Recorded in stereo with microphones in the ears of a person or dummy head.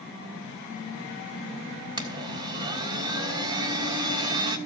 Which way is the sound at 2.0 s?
20° right (ahead or behind).